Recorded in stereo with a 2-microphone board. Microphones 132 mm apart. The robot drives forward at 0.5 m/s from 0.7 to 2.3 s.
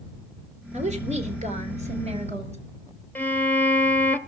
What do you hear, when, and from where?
0.7 s a woman speaking: 60° right (ahead or behind), 2 m; by 2.6 s 55° right (ahead or behind), 2.5 m
3.1 s a violin: 10° left (ahead or behind), 0.8 m